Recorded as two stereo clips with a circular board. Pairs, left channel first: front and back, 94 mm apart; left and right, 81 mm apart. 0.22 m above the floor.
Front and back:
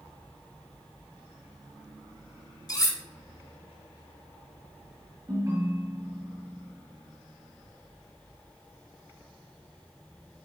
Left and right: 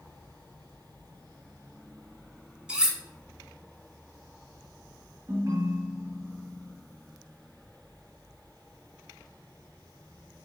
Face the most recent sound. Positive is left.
turn(degrees=-140)